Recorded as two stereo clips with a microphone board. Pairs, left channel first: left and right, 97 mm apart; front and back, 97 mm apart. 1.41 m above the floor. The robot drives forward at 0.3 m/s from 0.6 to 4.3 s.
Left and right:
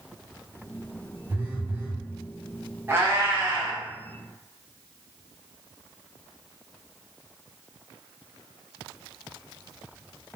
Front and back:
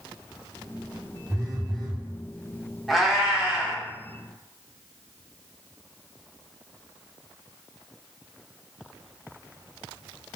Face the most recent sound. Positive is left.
turn(degrees=-150)